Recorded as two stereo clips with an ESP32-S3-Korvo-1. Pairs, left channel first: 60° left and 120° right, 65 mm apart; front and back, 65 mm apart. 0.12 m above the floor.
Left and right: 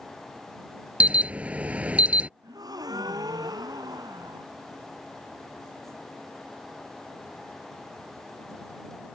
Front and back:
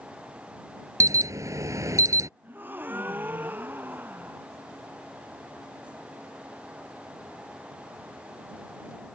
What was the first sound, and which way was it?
An alarm, 175° left.